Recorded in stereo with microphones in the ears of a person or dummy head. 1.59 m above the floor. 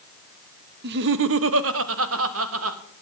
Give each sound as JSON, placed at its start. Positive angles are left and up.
{"t": 0.8, "sound": "laughter", "side_deg": -60, "distance_m": 1.0}